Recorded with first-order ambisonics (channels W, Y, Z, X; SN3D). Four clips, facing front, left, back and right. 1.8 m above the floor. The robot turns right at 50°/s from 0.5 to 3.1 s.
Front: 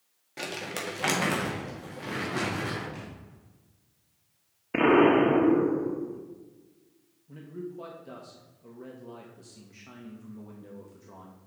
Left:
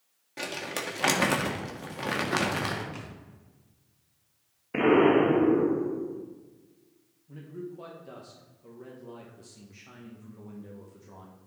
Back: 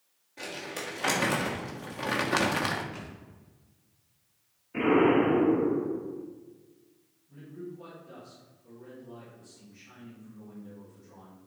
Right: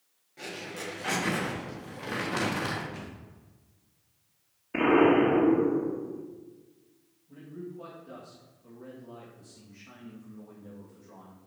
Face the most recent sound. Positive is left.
turn(degrees=35)